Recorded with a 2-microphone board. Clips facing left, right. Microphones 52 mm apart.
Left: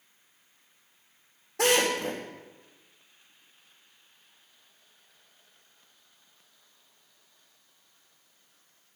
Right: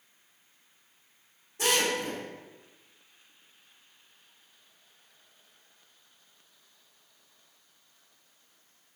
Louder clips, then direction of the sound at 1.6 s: Left 3 dB; 80° left.